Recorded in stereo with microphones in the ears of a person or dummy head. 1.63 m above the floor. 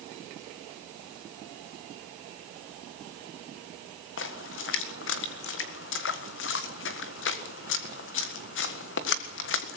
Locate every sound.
4.2 s a splash: 55° left (ahead or behind), 1.6 m